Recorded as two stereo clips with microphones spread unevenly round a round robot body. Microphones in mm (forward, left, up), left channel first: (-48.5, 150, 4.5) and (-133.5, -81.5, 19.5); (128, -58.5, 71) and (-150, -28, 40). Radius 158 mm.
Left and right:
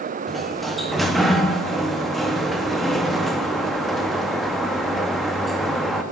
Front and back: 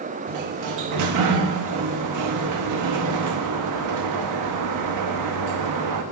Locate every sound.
0.3 s a sliding door: 160° left, 0.7 m